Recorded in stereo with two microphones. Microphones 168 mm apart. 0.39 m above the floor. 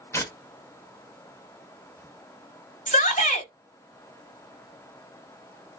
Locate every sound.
0.1 s tearing paper: 15° left (ahead or behind), 0.7 m
2.9 s a shout: 45° left (ahead or behind), 1.5 m